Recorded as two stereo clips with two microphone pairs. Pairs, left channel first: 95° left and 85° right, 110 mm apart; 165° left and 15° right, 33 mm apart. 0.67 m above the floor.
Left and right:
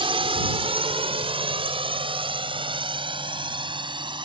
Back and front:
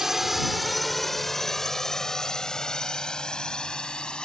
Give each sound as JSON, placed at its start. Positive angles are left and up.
{"t": 0.0, "sound": "a drone", "azimuth_deg": -85}